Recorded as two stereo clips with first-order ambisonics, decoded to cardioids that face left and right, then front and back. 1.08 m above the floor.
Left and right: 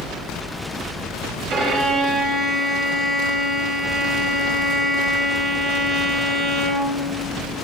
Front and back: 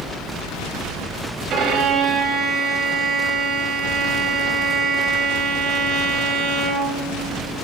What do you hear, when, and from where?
1.5 s a violin: 135° right, 0.8 m